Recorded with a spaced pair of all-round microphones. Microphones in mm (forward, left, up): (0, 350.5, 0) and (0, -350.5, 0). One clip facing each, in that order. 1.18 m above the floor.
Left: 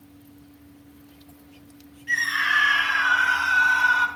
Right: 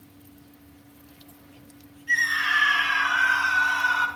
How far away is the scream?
About 2.5 m.